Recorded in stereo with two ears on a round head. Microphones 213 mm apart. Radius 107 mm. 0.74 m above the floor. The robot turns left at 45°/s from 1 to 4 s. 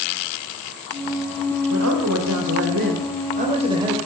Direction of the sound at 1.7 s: 65° right.